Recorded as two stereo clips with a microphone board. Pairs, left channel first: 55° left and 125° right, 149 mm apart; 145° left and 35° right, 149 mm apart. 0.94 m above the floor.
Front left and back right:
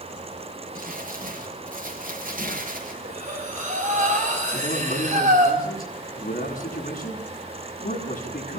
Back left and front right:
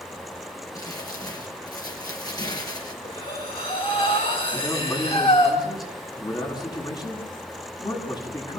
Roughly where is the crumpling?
Behind right.